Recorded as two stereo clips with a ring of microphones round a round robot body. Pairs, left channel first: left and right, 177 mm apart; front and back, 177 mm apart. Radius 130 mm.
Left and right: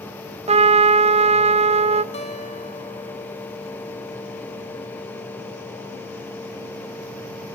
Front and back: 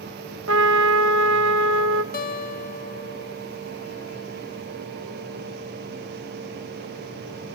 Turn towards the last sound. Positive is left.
turn(degrees=30)